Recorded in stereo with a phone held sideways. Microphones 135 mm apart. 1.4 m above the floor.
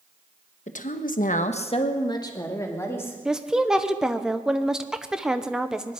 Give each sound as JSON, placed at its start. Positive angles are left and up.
{"t": 0.7, "sound": "a woman speaking", "side_deg": 60, "distance_m": 1.2}
{"t": 3.2, "sound": "a woman speaking", "side_deg": -5, "distance_m": 0.9}